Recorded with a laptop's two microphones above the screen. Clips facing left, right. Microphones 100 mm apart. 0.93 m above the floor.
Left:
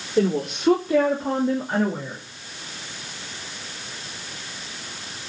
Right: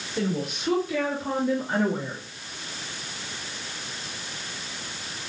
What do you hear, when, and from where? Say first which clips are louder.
0.2 s a woman speaking: left 7 dB; 60° left (ahead or behind), 3.5 m; by 2.2 s 5° right (ahead or behind), 2.5 m